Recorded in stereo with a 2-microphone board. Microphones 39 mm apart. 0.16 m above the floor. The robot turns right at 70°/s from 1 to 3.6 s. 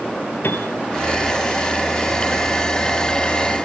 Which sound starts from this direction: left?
A piano, at 0.4 s.